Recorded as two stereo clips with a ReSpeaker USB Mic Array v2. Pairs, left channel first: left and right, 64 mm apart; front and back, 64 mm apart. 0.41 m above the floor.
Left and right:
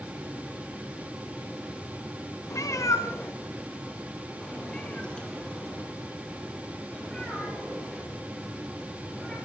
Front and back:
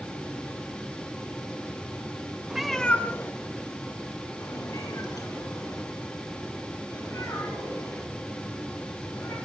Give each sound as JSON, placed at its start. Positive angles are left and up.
{"t": 2.5, "sound": "a cat meowing", "azimuth_deg": 105, "distance_m": 0.9}